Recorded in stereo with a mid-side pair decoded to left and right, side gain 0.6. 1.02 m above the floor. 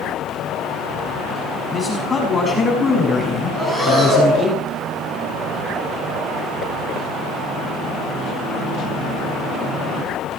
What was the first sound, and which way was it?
A man speaking, 15° left.